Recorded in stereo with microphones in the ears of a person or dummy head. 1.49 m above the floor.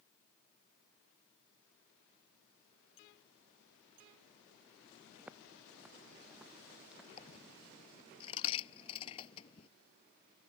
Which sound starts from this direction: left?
A dropped coin, at 7.2 s.